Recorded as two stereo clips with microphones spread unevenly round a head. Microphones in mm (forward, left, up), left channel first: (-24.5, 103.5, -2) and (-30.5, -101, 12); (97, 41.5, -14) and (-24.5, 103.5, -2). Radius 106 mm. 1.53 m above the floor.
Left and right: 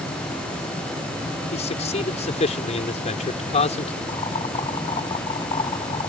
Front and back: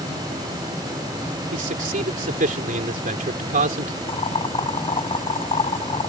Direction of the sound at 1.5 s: 145° left.